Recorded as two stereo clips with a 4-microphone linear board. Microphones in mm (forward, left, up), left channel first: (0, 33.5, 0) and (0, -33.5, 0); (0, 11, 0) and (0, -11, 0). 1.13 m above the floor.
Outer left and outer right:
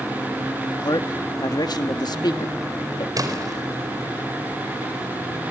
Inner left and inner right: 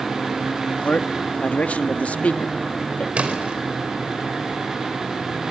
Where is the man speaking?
85° left, 1.6 m.